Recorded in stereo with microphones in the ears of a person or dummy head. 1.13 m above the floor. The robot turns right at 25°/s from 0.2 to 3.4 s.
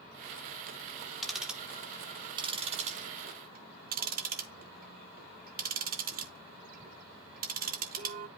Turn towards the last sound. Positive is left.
turn(degrees=-50)  # may be behind; listen again after turning